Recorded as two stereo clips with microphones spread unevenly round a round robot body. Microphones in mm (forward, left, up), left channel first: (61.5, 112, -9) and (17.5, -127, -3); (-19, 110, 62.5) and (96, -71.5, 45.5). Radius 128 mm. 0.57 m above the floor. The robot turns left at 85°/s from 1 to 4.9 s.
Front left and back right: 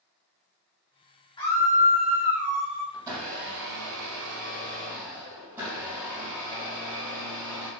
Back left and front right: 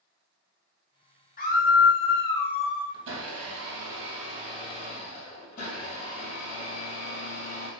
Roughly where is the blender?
Ahead.